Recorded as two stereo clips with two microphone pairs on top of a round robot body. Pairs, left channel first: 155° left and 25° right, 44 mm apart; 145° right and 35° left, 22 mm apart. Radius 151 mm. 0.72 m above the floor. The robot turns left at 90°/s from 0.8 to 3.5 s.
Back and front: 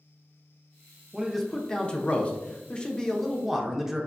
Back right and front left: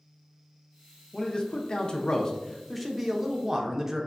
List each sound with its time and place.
1.1 s a man speaking: 105° right, 0.6 m; by 4.1 s 45° left, 0.6 m